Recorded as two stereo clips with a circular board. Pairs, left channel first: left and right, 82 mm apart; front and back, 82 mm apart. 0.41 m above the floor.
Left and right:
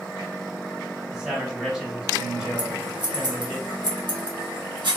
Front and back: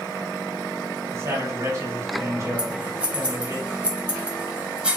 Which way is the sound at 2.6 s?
105° right.